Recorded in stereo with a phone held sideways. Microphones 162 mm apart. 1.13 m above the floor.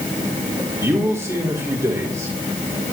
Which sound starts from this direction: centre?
A man speaking, at 0.8 s.